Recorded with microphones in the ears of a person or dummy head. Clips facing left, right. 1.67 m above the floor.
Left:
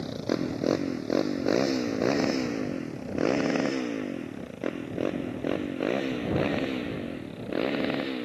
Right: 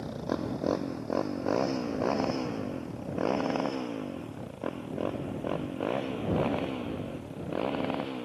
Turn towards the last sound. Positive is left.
turn(degrees=20)  # may be behind; listen again after turning